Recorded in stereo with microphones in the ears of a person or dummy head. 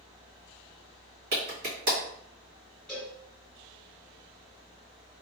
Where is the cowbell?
Centre (ahead or behind), 1.8 m.